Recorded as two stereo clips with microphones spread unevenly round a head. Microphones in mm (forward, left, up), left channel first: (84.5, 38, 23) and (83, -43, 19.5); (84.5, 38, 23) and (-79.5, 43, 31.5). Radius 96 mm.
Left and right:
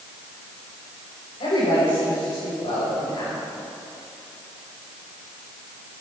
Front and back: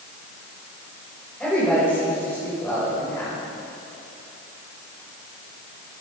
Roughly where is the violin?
No violin in this recording.